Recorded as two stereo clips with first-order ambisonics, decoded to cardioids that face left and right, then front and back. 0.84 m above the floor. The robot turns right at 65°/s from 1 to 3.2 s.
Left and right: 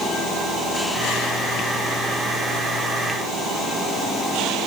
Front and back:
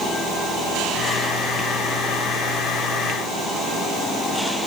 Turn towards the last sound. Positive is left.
No sound to turn to.